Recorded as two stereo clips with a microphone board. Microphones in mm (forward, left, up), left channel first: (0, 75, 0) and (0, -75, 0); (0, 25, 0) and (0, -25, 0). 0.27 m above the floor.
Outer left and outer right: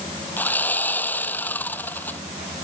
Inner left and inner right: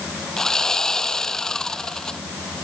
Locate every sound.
0.4 s sawing: 10° left (ahead or behind)